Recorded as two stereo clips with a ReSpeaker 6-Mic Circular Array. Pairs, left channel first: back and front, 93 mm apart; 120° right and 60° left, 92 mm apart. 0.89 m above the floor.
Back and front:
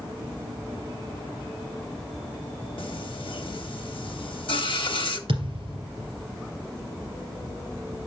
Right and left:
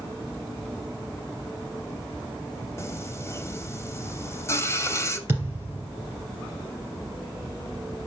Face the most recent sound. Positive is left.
turn(degrees=-5)